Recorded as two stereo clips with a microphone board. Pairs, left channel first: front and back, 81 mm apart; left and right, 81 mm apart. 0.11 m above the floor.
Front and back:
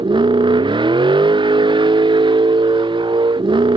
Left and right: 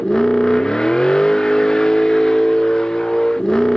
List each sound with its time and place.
0.0 s a vehicle: 170° left